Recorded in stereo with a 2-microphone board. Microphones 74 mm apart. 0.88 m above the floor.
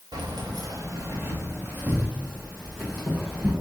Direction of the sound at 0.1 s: 75° right (ahead or behind).